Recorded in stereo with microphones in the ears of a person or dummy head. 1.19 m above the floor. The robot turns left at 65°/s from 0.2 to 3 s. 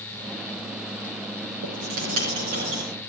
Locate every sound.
1.6 s writing: 75° right, 7.5 m; by 2.8 s 150° right, 7.5 m